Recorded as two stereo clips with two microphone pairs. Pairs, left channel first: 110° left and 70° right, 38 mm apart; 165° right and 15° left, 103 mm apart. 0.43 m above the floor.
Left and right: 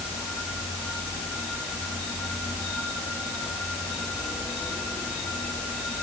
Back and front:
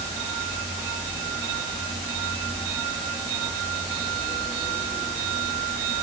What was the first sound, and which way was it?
Only background noise.